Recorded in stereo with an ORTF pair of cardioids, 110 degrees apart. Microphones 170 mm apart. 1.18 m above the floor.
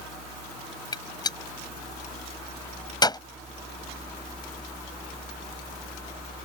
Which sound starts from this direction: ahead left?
A gunshot, at 0.9 s.